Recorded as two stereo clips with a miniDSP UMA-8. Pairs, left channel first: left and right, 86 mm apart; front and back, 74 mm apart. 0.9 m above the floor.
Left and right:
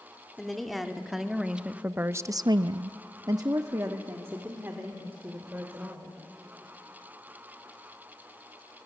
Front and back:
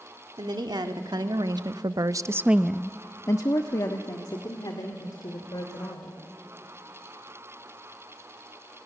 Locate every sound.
0.4 s a woman speaking: straight behind, 2 m; by 6.2 s 20° right, 3.5 m